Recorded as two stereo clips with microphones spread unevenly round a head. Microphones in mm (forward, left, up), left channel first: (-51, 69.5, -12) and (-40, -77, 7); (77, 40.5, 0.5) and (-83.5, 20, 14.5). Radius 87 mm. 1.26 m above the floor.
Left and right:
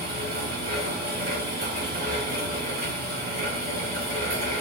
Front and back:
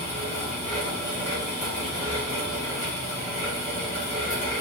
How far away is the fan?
About 1.9 m.